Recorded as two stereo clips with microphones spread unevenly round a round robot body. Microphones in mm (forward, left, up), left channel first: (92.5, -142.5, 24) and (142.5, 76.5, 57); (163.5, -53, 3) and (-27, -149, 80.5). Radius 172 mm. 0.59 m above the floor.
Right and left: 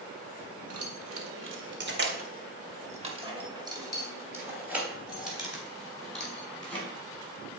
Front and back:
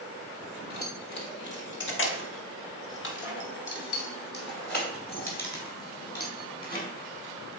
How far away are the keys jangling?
About 1.8 m.